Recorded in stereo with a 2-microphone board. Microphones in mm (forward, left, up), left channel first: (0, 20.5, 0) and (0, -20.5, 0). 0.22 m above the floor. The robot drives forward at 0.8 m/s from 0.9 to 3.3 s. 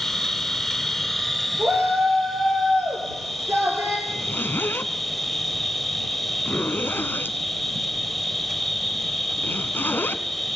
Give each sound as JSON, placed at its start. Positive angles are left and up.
{"t": 0.0, "sound": "an insect", "side_deg": 5, "distance_m": 1.6}
{"t": 1.6, "sound": "a shout", "side_deg": -75, "distance_m": 5.0}
{"t": 4.1, "sound": "a zipper", "side_deg": 55, "distance_m": 1.7}